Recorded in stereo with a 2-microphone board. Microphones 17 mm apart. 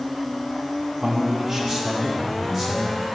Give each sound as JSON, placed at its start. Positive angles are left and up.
{"t": 1.0, "sound": "a man speaking", "side_deg": -35, "distance_m": 0.9}